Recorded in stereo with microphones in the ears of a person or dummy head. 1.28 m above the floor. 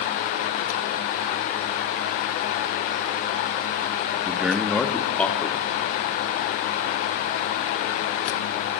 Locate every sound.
4.3 s a man speaking: 15° right (ahead or behind), 1.3 m; by 6.1 s 10° left (ahead or behind), 3.5 m